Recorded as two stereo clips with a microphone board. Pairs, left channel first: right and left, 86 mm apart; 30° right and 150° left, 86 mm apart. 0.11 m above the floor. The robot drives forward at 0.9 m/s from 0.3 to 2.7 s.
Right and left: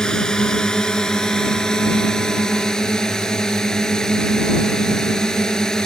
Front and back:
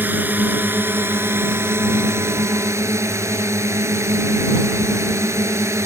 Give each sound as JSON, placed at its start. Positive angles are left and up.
{"t": 0.0, "sound": "a drone", "azimuth_deg": -165}